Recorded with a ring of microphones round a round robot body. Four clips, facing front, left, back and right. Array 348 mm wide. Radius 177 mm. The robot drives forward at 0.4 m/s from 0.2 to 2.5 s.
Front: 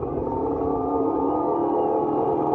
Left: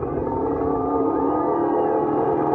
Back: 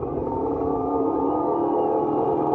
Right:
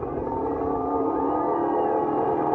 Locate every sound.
0.0 s a helicopter: 90° left; by 2.6 s 100° left